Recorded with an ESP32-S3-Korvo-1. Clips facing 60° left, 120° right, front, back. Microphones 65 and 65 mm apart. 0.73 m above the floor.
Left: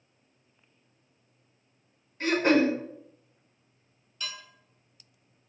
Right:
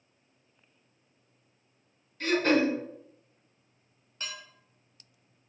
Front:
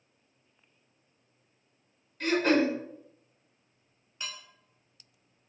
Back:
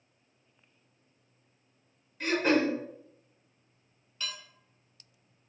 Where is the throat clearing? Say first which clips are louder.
Left 2 dB, front 1 dB; 105° left, 1.0 m.